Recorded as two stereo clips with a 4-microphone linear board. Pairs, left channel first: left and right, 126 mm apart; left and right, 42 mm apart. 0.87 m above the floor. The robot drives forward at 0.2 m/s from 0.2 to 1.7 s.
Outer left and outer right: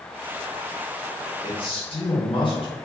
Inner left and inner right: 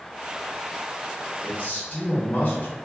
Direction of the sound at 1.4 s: 50° left (ahead or behind).